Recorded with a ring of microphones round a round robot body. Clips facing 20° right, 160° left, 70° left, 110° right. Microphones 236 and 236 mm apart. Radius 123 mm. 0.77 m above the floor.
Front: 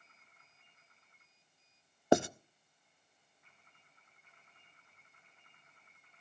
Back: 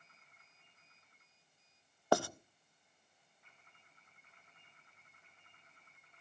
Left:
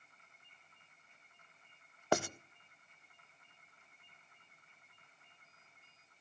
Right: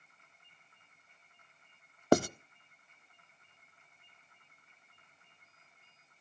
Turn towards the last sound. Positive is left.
turn(degrees=-85)